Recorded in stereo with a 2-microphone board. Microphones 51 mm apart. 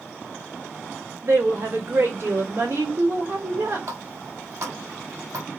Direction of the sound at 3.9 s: 80° right.